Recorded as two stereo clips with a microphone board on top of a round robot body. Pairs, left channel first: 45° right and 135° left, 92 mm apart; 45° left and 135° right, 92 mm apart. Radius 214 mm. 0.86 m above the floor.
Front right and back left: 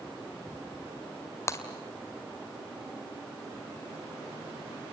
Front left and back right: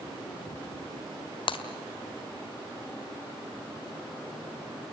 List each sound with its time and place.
1.5 s breaking glass: 15° left, 1.6 m